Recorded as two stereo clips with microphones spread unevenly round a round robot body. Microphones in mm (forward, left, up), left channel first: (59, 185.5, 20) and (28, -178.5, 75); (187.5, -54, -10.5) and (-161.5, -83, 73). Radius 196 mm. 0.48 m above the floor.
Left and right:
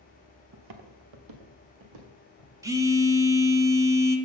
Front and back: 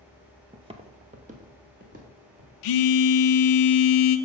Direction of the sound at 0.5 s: 110° right.